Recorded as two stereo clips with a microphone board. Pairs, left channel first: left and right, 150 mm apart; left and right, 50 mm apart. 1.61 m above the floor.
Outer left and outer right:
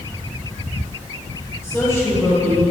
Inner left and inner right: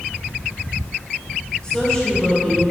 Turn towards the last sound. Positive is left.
turn(degrees=20)  # may be behind; listen again after turning